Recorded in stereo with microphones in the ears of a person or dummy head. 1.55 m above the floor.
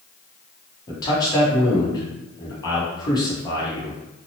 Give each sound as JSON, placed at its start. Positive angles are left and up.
{"t": 0.9, "sound": "a man speaking", "side_deg": 20, "distance_m": 0.9}